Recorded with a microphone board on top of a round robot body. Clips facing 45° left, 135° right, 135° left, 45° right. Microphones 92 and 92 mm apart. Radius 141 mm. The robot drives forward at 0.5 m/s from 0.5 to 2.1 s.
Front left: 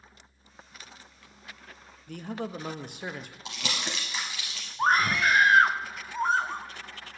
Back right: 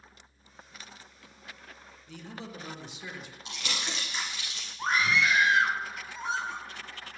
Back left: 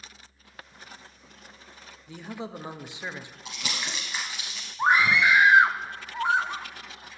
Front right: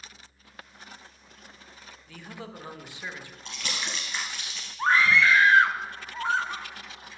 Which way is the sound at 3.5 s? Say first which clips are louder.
Front left 2 dB, even; 50° left.